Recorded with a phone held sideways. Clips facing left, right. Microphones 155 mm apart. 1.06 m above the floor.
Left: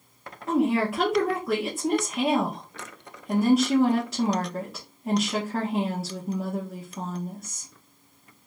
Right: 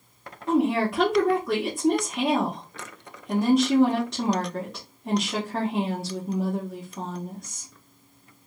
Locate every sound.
0.5 s a woman speaking: 5° left (ahead or behind), 1.0 m